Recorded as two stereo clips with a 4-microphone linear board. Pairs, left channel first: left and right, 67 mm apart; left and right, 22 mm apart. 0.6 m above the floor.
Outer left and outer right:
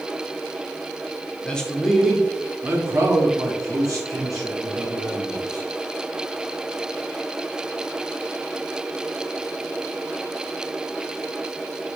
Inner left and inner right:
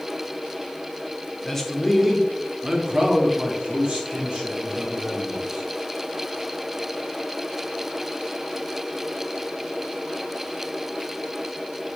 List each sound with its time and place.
1.4 s a man speaking: 15° left (ahead or behind), 0.8 m; by 5.7 s 65° right (ahead or behind), 2.0 m